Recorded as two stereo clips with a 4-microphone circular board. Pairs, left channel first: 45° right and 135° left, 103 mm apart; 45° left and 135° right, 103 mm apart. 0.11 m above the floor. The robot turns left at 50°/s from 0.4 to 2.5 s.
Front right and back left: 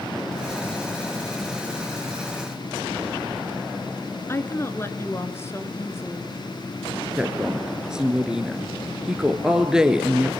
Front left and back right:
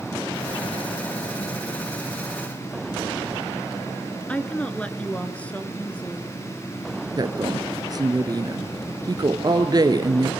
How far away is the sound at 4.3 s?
About 1.2 m.